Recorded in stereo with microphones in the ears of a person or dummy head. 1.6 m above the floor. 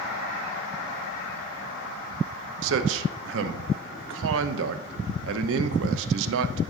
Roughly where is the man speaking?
Right.